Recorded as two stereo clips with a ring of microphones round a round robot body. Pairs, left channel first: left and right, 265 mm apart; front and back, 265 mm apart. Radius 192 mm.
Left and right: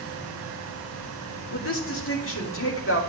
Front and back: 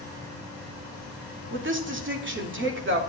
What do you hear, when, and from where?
1.5 s a woman speaking: 140° left, 2.5 m